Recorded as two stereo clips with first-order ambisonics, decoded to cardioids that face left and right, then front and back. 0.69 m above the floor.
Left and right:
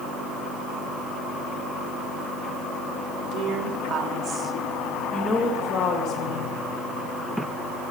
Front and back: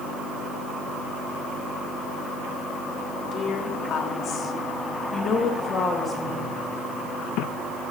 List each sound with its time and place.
3.3 s a woman speaking: 55° right, 2 m; by 6.5 s 85° left, 1.6 m